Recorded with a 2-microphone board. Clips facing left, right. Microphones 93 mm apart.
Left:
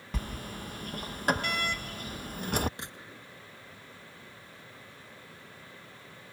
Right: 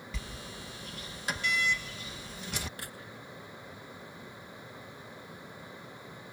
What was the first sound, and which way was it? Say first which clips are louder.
A sliding door: left 9 dB; 55° left (ahead or behind).